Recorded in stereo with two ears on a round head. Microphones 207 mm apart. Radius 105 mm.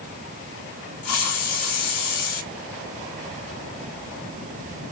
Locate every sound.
1.0 s a hiss: 75° left (ahead or behind), 3 m